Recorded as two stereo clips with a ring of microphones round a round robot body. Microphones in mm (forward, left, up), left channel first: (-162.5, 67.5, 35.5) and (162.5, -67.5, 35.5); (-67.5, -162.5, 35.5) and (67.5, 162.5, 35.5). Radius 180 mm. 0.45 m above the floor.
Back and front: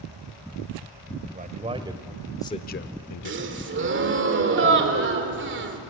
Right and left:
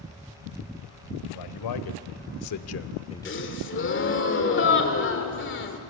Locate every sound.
1.2 s a man speaking: 90° right, 2 m; by 3.7 s 150° left, 1.4 m
3.2 s a gasp: 70° right, 1.9 m